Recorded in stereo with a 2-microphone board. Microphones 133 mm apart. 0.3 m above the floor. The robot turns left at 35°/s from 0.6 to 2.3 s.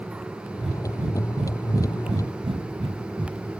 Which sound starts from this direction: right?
Breathing, at 0.6 s.